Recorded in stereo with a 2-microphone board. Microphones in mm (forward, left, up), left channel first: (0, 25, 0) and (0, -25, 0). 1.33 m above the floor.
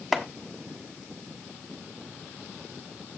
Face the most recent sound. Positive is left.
turn(degrees=0)  # may be behind; listen again after turning